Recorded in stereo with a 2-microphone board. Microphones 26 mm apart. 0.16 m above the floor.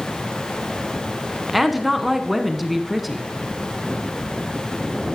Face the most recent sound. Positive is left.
turn(degrees=-5)  # may be behind; listen again after turning